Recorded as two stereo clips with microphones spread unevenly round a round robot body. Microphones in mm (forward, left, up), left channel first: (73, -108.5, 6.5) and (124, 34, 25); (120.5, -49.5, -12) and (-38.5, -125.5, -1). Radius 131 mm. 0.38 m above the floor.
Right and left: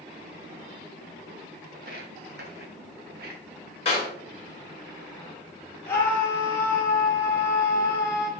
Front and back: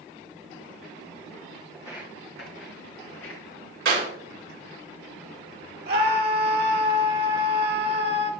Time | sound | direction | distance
1.7 | footsteps | 120° left | 0.8 m
3.9 | a clap | 175° right | 3 m
5.9 | a scream | straight behind | 1.3 m